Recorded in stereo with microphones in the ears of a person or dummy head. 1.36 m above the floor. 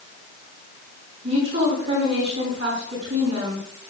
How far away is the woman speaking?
About 6 m.